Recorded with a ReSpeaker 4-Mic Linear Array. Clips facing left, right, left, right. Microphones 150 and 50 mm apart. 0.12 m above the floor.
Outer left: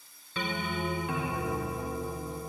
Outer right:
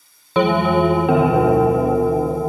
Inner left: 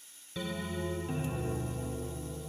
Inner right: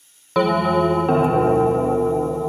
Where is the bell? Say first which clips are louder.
Outer right 18 dB, inner right 20 dB; 80° right, 0.5 m.